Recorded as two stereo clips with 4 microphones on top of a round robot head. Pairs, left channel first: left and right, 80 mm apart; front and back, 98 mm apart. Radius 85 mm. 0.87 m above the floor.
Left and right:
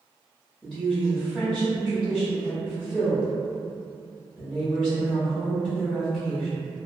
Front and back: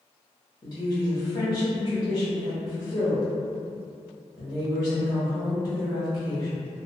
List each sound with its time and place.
0.6 s a woman speaking: 10° left, 1.1 m